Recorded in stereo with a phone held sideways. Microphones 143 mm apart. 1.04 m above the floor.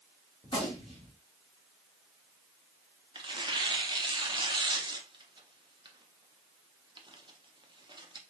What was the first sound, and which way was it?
A gunshot, 40° left (ahead or behind).